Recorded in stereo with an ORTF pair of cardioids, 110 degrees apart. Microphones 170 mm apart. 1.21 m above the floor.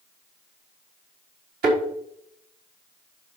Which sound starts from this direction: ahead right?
A thud, at 1.6 s.